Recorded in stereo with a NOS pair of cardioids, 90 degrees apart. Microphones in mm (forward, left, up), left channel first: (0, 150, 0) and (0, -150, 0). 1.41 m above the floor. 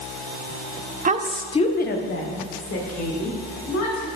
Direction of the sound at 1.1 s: 30° right.